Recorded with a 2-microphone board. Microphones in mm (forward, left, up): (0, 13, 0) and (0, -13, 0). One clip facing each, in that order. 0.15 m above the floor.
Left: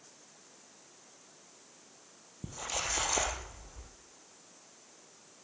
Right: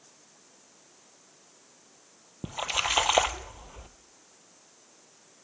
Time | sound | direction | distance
2.4 | a splash | 75° right (ahead or behind) | 0.6 m